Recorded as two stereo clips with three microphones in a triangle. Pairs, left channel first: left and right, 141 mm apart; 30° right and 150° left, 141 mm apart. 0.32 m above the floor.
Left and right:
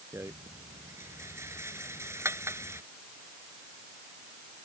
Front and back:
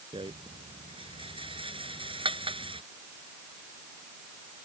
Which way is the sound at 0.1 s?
160° right.